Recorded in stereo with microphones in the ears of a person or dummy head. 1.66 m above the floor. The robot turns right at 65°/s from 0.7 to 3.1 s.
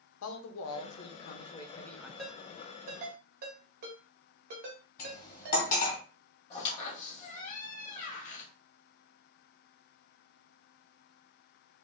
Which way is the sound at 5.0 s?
45° left (ahead or behind).